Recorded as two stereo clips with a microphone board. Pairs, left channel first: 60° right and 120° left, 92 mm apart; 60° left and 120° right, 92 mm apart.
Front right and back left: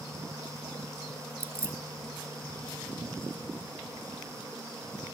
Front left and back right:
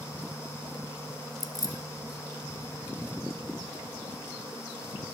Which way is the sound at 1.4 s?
70° left.